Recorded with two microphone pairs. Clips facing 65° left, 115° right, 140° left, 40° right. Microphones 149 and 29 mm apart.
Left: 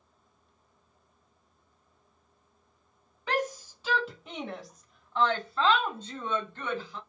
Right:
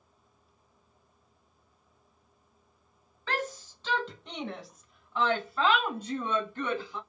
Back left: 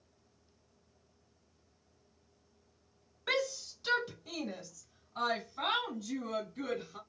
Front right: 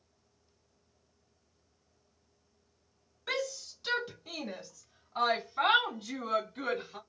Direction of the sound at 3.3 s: 115° left.